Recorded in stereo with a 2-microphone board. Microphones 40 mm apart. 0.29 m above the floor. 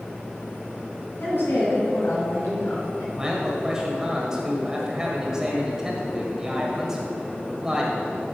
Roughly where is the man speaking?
Centre.